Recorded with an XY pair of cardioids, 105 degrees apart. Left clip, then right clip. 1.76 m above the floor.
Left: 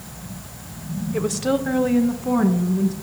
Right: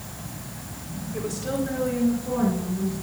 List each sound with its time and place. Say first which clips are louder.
1.1 s a woman speaking: left 7 dB; 60° left, 1.2 m; by 2.9 s 75° left, 2.5 m